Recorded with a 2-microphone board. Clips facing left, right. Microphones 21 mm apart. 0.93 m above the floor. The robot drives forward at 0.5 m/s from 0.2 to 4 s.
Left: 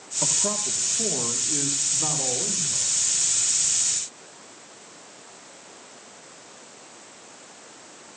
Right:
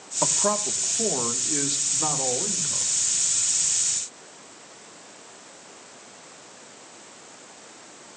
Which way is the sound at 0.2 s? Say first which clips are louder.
Right 3 dB; 35° right (ahead or behind).